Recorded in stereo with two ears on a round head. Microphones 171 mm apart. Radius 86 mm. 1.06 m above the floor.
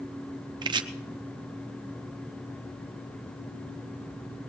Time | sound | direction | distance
0.6 | chopping | 25° right (ahead or behind) | 0.7 m